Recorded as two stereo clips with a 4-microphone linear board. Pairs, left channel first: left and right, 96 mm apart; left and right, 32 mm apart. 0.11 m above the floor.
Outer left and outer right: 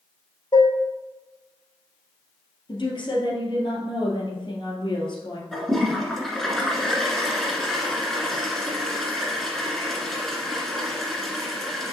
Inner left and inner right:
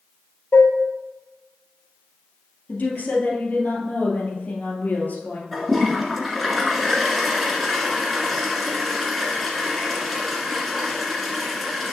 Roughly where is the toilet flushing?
Centre.